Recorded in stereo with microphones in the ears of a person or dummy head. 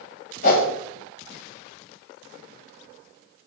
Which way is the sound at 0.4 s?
50° left (ahead or behind).